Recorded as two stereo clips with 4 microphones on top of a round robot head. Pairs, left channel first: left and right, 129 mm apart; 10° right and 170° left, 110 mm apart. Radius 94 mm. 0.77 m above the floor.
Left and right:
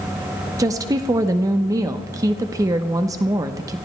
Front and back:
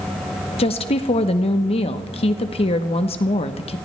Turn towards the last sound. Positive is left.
turn(degrees=-30)